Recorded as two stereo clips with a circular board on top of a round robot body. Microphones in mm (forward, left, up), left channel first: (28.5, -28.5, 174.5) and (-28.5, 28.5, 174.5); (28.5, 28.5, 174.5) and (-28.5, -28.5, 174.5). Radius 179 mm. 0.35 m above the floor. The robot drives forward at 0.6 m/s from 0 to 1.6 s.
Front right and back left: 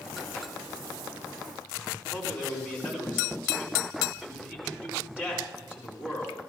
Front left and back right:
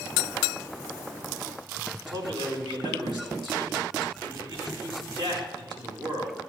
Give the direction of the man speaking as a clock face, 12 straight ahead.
5 o'clock.